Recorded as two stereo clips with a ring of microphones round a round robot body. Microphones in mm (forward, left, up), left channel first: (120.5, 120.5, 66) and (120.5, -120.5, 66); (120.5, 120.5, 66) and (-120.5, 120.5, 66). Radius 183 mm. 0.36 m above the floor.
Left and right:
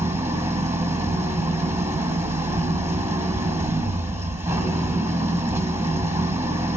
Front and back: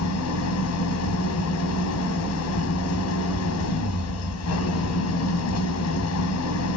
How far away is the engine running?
About 1.7 m.